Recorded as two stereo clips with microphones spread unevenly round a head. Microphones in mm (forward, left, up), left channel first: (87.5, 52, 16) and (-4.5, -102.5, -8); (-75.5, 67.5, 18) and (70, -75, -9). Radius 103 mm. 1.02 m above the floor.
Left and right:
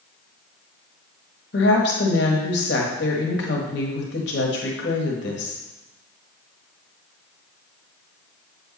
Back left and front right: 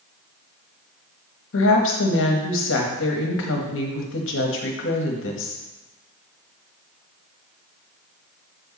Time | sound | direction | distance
1.5 | a woman speaking | 100° left | 1.2 m